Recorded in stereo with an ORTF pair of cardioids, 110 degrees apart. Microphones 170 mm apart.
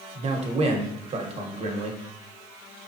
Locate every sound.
0.1 s a man speaking: 40° right, 1.1 m